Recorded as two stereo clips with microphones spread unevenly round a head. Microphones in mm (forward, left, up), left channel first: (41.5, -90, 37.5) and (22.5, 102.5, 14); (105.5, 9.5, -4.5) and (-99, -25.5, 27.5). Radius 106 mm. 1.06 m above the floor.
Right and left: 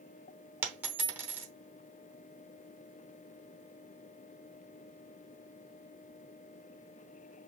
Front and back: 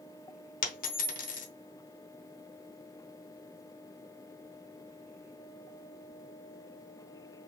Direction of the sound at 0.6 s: 10° left.